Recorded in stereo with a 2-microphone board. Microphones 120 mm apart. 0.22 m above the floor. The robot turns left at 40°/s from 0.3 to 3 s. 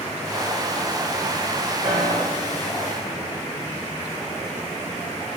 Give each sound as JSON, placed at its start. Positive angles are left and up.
{"t": 1.8, "sound": "a piano", "side_deg": -70, "distance_m": 8.0}